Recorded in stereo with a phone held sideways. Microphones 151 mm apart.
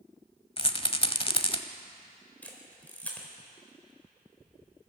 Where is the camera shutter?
10° left (ahead or behind), 4 m.